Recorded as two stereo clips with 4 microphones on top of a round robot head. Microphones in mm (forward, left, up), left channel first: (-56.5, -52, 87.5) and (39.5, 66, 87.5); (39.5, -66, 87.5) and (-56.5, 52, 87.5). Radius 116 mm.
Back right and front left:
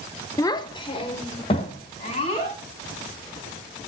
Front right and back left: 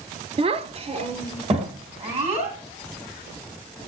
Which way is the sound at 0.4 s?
170° left.